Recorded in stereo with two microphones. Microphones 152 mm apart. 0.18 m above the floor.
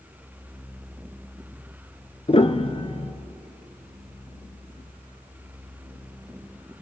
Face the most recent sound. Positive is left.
turn(degrees=40)  # may be behind; listen again after turning